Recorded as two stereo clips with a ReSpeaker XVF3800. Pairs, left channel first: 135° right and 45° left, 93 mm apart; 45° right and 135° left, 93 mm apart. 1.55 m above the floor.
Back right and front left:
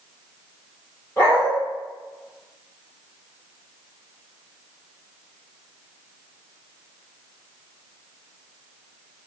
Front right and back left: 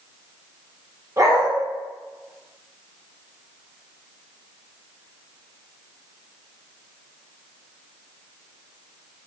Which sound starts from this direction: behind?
A dog barking, at 1.2 s.